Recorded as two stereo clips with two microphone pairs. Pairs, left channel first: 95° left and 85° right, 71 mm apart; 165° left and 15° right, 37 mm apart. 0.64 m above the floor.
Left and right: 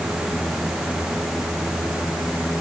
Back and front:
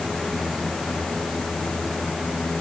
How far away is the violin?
No violin in this recording.